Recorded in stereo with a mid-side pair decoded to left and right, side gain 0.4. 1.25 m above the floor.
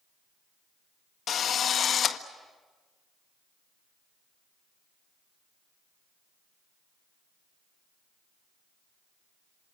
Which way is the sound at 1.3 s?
60° left.